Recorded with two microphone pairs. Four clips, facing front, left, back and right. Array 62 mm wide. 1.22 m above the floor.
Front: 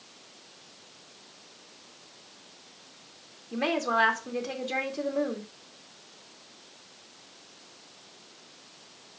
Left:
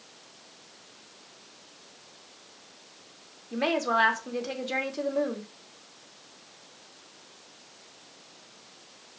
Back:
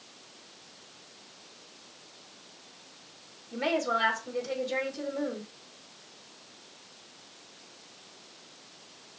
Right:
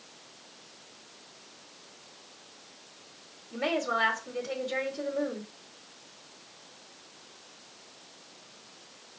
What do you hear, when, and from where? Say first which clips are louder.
3.5 s a woman speaking: left 3 dB, front 2 dB; 70° left, 2.5 m